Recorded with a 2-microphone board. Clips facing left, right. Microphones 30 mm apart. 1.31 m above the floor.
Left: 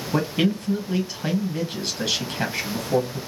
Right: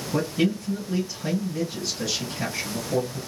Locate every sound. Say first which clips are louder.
0.1 s a man speaking: left 2 dB; 50° left (ahead or behind), 1.4 m